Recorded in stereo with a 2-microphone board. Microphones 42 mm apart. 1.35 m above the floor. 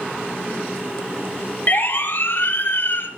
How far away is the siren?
About 3.5 m.